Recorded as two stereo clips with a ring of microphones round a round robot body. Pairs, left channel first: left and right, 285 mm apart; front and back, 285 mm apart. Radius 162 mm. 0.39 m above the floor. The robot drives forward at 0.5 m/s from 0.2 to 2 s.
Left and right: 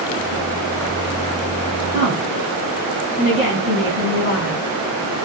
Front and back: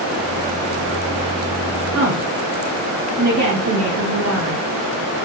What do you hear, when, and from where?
1.9 s a woman speaking: 155° left, 3 m